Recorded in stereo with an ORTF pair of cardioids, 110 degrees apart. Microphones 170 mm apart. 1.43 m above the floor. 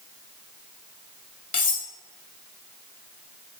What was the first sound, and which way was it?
Cutlery clinking, 50° left.